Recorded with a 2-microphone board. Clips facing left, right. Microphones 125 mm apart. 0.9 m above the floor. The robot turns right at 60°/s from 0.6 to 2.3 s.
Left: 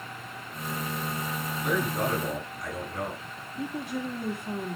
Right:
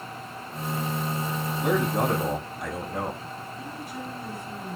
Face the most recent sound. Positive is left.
turn(degrees=70)  # may be behind; listen again after turning